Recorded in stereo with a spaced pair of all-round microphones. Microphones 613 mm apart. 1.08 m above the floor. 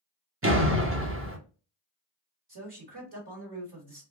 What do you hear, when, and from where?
0.4 s a door slam: 20° right (ahead or behind), 0.9 m
2.5 s a man speaking: 40° right (ahead or behind), 1.5 m